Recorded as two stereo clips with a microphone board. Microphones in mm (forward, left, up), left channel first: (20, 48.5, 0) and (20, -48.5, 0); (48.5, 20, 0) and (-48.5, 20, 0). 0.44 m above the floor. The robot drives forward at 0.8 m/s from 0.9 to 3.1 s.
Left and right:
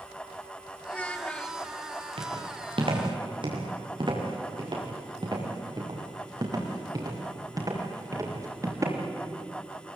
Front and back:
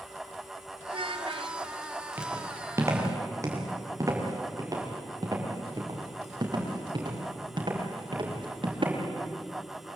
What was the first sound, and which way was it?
A child speaking, 165° left.